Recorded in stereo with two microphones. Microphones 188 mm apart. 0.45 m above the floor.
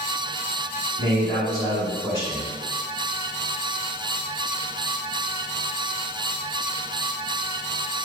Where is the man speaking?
25° left (ahead or behind), 1.6 m.